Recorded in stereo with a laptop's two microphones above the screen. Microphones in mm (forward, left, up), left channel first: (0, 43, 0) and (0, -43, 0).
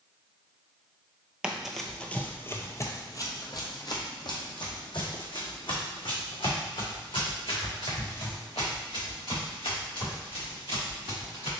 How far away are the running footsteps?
About 1.0 m.